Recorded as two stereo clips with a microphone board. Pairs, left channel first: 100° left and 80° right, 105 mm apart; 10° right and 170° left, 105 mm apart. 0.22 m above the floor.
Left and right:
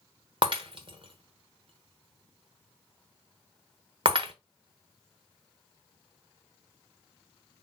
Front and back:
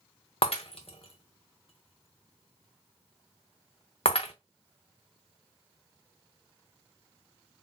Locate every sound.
0.4 s breaking glass: 40° right, 1.0 m